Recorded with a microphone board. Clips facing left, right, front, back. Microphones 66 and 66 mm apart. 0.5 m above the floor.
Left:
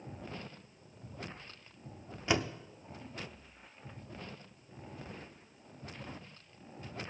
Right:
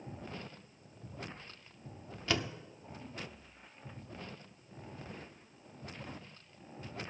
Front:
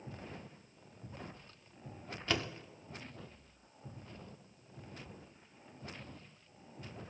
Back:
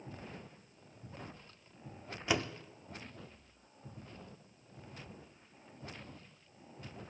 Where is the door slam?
125° left, 0.5 m.